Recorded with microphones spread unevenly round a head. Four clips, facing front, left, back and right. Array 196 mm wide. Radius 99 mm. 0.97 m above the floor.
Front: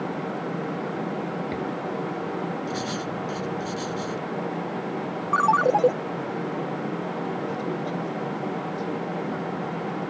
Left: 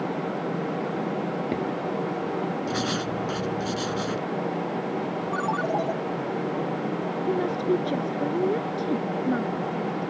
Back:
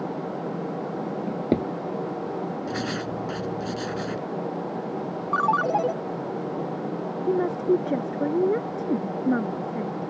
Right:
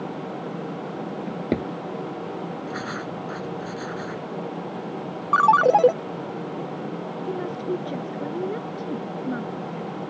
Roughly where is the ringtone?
Right.